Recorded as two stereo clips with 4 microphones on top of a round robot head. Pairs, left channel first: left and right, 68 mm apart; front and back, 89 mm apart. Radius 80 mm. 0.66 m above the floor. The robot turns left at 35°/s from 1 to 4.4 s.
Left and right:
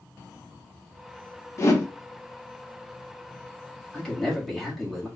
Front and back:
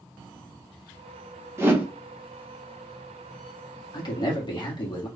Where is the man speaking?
15° left, 1.6 m; by 5.1 s straight ahead, 1.6 m.